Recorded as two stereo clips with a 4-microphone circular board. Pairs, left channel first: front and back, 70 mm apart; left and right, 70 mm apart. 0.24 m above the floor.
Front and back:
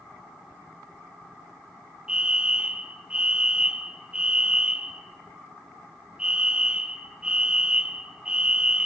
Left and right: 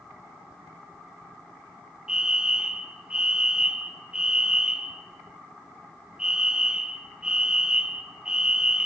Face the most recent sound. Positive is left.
turn(degrees=-140)